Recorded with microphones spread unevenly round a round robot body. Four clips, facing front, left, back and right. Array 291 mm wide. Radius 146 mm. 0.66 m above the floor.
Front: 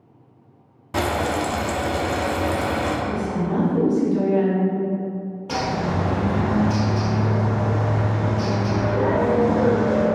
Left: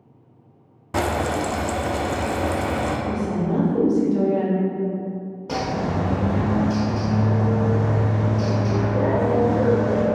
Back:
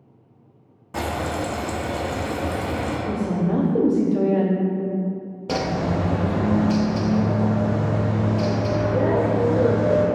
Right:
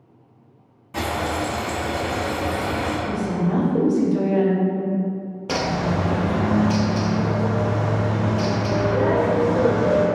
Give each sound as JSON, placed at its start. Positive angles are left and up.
{"t": 0.9, "sound": "frying", "azimuth_deg": 50, "distance_m": 0.6}
{"t": 3.1, "sound": "a woman speaking", "azimuth_deg": -175, "distance_m": 0.6}
{"t": 5.5, "sound": "a bird", "azimuth_deg": -155, "distance_m": 0.6}